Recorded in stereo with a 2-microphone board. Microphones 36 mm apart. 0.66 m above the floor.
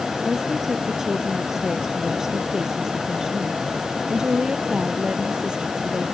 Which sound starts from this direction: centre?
A woman speaking, at 0.2 s.